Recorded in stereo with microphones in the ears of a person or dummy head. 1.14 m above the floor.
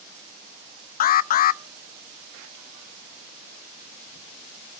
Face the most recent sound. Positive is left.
turn(degrees=45)  # may be behind; listen again after turning